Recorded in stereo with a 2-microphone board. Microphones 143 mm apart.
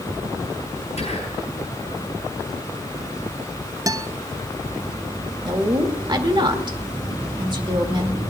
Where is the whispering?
50° left (ahead or behind), 4 m.